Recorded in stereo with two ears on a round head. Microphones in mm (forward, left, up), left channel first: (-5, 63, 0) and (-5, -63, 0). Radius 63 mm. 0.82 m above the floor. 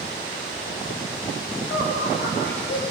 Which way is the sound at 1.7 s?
80° left.